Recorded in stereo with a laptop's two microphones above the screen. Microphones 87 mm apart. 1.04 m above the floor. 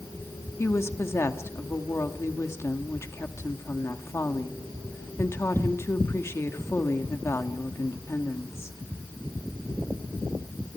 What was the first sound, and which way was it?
A woman speaking, 30° left (ahead or behind).